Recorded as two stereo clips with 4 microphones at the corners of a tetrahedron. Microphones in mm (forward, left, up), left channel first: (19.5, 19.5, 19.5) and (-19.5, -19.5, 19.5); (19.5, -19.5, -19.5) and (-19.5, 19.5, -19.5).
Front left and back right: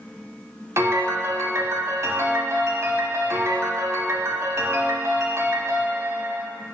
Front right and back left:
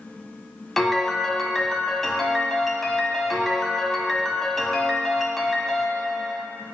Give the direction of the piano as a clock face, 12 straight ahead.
4 o'clock.